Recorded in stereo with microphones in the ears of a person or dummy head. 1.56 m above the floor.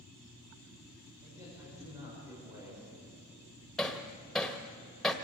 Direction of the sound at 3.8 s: Centre (ahead or behind).